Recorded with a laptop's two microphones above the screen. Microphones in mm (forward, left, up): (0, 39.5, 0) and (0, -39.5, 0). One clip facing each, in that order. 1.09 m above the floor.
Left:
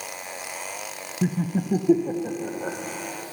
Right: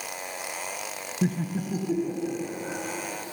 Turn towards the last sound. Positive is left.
turn(degrees=65)  # may be behind; listen again after turning